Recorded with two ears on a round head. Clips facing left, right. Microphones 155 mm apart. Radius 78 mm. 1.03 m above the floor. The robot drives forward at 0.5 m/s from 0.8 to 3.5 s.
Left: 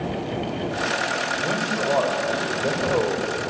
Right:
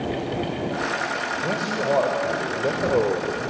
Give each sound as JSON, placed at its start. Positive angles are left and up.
{"t": 1.4, "sound": "a man speaking", "side_deg": -10, "distance_m": 4.0}